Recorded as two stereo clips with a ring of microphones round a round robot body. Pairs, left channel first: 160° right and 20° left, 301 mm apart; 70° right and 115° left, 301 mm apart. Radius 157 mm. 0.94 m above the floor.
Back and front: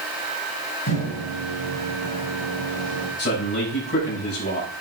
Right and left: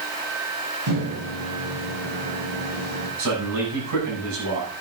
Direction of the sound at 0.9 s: 150° left.